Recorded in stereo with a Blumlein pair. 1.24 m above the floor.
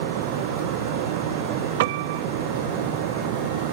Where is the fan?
50° right.